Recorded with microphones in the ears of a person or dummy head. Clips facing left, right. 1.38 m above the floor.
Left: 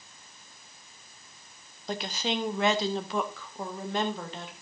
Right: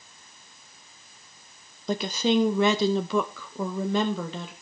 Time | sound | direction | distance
1.9 | a woman speaking | 70° right (ahead or behind) | 0.9 m